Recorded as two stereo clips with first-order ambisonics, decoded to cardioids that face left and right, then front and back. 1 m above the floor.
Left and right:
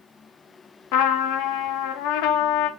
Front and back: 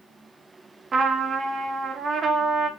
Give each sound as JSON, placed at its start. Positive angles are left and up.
{"t": 0.9, "sound": "a trumpet", "azimuth_deg": 110, "distance_m": 0.5}